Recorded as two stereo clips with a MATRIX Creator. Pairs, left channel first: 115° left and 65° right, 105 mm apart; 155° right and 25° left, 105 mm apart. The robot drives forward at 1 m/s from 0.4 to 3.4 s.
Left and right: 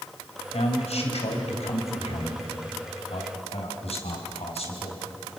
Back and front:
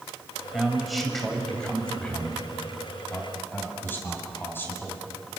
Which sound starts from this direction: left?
A man speaking, at 0.5 s.